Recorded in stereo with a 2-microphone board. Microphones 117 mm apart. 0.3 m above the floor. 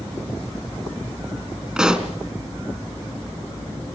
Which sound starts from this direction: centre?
A pop, at 1.8 s.